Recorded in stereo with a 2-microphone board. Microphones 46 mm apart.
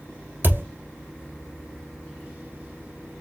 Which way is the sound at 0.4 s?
45° right (ahead or behind).